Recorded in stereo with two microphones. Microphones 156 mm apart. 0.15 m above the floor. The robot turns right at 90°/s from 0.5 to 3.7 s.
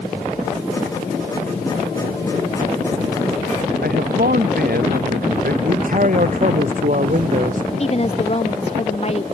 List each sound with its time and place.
3.8 s a man speaking: 75° right (ahead or behind)
5.6 s a man speaking: 60° right (ahead or behind)
7.8 s a woman speaking: 40° left (ahead or behind)